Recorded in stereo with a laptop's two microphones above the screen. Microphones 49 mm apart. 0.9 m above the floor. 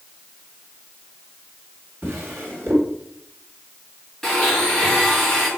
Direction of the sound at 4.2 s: 5° left (ahead or behind).